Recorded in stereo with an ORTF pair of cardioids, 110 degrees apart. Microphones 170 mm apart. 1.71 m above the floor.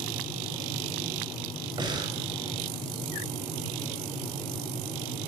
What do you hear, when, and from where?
1.8 s breathing: 25° right, 8 m